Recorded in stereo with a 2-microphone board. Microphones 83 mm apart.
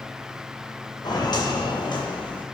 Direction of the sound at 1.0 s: 50° left (ahead or behind).